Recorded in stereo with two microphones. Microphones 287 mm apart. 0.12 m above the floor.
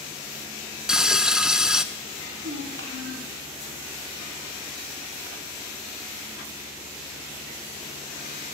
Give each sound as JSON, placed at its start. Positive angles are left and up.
{"t": 0.9, "sound": "frying", "side_deg": -5, "distance_m": 0.6}
{"t": 2.2, "sound": "a child speaking", "side_deg": -45, "distance_m": 3.0}